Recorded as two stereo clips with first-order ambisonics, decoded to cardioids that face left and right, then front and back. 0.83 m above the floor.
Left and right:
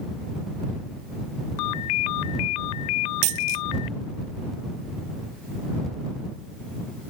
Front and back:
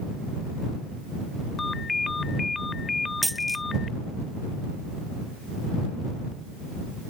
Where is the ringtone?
75° left.